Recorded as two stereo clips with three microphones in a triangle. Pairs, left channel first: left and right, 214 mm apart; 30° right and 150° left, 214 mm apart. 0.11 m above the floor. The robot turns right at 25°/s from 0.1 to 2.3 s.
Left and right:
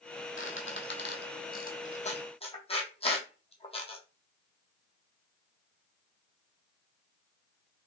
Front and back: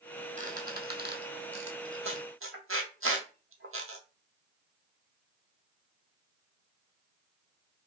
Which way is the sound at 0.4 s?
100° left.